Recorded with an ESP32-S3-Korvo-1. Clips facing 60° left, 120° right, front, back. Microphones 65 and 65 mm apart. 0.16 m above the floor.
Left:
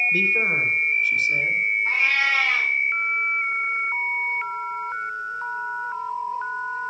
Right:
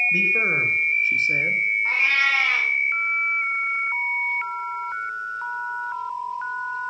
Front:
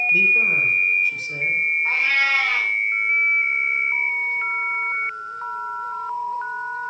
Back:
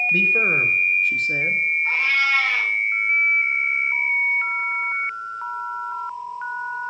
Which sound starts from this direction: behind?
A man speaking, at 0.1 s.